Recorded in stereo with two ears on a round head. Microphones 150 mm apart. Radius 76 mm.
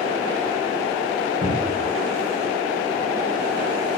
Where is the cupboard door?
35° left (ahead or behind), 1.9 m.